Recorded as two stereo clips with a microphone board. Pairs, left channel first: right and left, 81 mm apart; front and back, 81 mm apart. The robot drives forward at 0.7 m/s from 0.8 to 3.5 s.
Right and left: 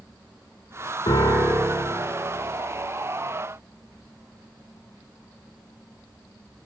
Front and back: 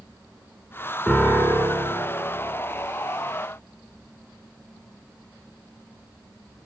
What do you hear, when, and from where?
1.1 s a piano: 70° right, 3 m; by 1.9 s 85° right, 2.5 m